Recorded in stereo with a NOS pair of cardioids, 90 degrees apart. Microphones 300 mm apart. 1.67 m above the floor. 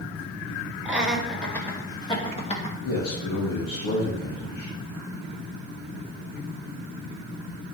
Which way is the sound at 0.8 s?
5° right.